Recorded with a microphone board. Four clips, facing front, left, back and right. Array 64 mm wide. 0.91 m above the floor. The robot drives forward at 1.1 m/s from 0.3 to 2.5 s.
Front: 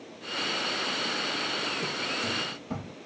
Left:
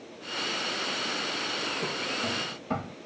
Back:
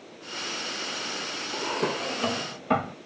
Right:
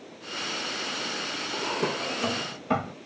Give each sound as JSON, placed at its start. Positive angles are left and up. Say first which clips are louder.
{"t": 1.5, "sound": "a drawer", "louder": "right 4 dB, back 4 dB", "azimuth_deg": -140}